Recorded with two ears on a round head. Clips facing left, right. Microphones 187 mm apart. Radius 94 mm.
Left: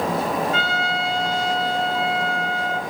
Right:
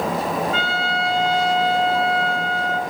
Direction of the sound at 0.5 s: 75° right (ahead or behind).